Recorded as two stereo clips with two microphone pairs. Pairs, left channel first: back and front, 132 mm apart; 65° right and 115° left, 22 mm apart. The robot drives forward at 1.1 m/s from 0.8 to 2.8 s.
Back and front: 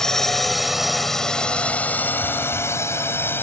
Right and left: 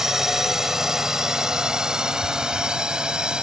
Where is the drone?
100° left; by 3.4 s 115° left.